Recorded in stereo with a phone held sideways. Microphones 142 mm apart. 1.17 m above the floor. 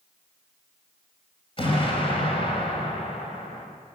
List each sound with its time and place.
1.6 s an explosion: 40° left (ahead or behind), 4 m